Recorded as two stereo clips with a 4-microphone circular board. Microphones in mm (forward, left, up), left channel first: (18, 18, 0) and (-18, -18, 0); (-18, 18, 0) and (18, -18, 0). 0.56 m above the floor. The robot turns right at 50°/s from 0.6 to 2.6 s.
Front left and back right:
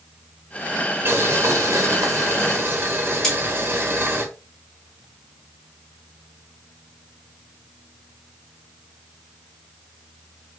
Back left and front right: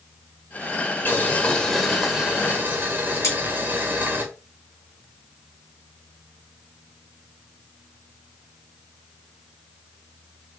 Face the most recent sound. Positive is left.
turn(degrees=125)